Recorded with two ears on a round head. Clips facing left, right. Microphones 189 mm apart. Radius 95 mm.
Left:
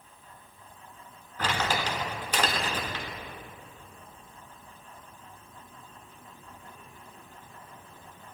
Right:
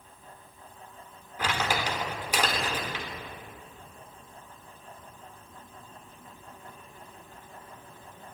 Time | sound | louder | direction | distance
1.4 | crumpling | even | 10° right (ahead or behind) | 1.3 m